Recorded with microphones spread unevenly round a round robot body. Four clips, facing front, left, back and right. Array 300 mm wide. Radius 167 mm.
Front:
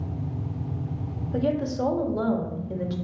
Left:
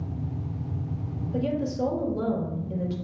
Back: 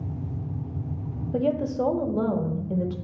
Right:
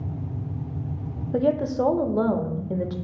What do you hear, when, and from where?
1.3 s a woman speaking: 75° right, 1.5 m